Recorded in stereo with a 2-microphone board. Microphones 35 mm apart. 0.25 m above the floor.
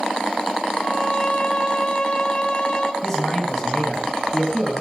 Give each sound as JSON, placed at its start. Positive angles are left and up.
{"t": 0.8, "sound": "a violin", "side_deg": 30, "distance_m": 1.5}
{"t": 3.0, "sound": "a man speaking", "side_deg": 10, "distance_m": 1.8}